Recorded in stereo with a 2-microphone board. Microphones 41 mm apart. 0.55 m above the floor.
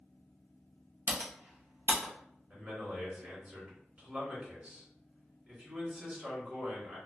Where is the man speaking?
30° right (ahead or behind), 1.4 m.